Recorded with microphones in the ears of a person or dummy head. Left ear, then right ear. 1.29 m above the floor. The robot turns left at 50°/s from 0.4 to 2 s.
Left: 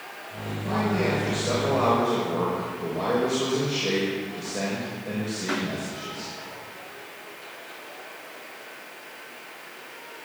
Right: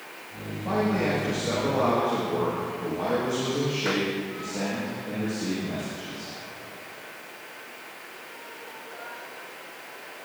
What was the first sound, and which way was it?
A man speaking, 170° right.